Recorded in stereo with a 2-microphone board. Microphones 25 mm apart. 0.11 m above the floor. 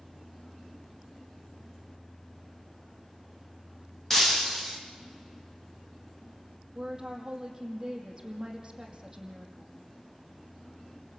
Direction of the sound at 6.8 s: 20° right (ahead or behind).